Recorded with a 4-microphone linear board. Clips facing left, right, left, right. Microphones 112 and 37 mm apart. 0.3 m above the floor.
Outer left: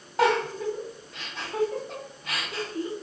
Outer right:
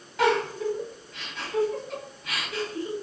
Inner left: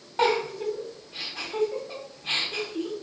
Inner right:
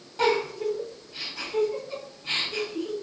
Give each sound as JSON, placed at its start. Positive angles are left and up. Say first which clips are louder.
{"t": 0.2, "sound": "a giggle", "louder": "even, even", "side_deg": 40, "distance_m": 1.9}